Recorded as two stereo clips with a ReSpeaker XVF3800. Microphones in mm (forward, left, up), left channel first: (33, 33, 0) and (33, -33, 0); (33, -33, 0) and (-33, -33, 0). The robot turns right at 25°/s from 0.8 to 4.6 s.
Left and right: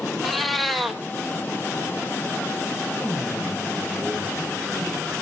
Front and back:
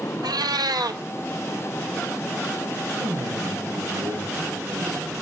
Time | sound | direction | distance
0.2 | a cat meowing | straight behind | 0.9 m
3.0 | a man speaking | 170° left | 5.5 m